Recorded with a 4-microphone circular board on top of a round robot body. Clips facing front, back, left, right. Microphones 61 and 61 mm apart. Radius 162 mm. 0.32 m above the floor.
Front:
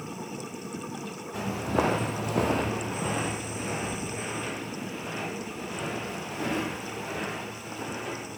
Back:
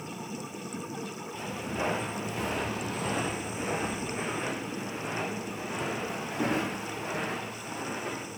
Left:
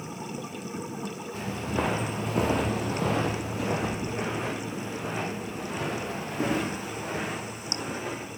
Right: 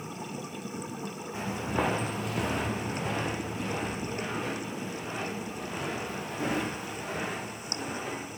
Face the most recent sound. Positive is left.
turn(degrees=125)